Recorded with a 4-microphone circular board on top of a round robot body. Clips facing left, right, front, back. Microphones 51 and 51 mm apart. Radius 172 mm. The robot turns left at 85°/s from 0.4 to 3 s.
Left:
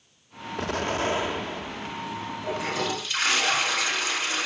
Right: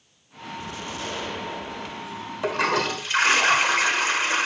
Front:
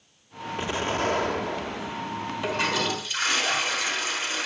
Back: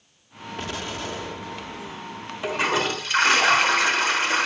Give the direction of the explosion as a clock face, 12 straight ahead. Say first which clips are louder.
Left 8 dB, front 5 dB; 10 o'clock.